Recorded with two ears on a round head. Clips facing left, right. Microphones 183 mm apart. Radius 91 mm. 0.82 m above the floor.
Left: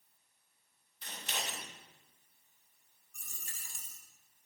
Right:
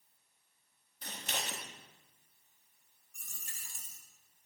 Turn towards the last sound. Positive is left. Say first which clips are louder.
# left 1 dB
turn(degrees=65)  # may be behind; listen again after turning